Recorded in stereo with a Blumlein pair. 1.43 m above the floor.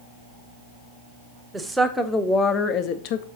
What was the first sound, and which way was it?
A woman speaking, 5° right.